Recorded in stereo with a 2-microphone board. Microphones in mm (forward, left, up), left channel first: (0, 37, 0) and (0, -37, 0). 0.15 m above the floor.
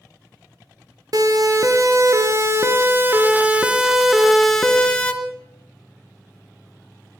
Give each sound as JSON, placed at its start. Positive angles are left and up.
{"t": 1.1, "sound": "a siren", "side_deg": -55, "distance_m": 3.5}